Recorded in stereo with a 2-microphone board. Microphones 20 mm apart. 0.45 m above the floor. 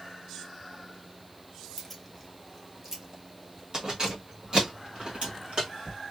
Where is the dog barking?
No dog barking in this recording.